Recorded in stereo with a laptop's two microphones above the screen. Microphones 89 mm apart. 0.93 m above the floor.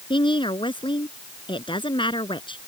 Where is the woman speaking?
70° left (ahead or behind).